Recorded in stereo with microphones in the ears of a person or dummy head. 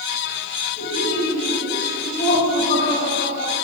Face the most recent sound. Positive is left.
turn(degrees=45)  # may be behind; listen again after turning